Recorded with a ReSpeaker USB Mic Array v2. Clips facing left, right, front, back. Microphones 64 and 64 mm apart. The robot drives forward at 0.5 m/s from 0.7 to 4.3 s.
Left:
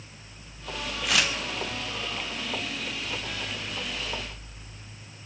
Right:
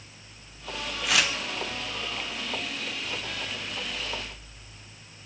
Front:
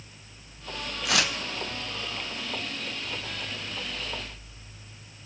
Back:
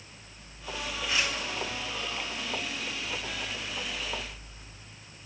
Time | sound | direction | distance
1.1 | tearing paper | straight ahead | 1.2 m